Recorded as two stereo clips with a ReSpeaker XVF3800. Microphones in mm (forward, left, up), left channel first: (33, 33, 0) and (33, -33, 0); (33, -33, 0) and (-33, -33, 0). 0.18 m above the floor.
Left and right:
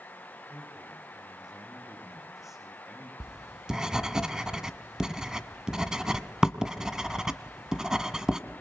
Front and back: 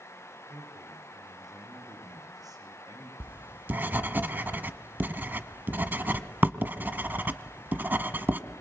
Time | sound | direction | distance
0.5 | a man speaking | 175° right | 10 m
3.2 | writing | 160° right | 1.3 m